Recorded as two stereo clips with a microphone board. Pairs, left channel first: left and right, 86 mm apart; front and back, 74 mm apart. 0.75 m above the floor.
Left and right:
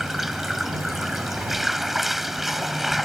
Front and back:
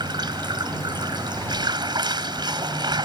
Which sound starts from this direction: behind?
Running water, at 0.0 s.